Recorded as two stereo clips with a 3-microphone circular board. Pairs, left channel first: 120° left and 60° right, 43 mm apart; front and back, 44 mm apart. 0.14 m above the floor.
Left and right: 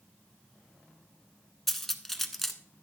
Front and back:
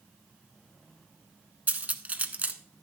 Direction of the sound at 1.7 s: 155° right.